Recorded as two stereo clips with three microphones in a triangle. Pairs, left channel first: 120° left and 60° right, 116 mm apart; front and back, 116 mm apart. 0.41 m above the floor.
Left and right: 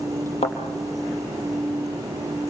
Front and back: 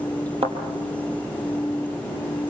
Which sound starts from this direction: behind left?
A thud, at 0.4 s.